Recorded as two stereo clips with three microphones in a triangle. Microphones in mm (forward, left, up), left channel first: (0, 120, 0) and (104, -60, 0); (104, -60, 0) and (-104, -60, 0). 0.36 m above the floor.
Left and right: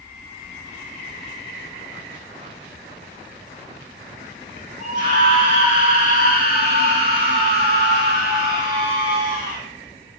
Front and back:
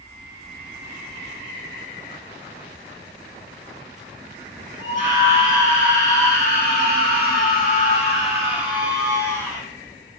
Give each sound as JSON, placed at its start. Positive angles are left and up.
{"t": 4.8, "sound": "a scream", "azimuth_deg": -15, "distance_m": 3.5}